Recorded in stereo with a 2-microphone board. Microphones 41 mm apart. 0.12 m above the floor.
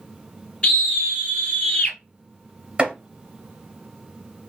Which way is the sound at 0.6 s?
25° left (ahead or behind).